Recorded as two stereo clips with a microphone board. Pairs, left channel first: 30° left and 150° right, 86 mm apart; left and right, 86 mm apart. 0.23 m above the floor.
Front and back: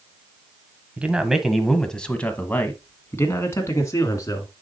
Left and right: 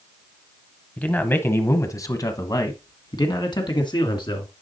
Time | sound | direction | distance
1.0 | a man speaking | 150° left | 1.1 m